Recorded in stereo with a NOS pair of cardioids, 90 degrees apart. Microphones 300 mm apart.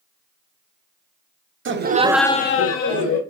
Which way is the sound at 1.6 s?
40° right.